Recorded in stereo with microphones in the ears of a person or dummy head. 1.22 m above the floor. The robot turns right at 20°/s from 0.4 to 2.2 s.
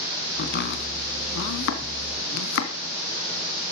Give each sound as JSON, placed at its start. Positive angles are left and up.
{"t": 0.4, "sound": "chopping", "side_deg": 55, "distance_m": 3.0}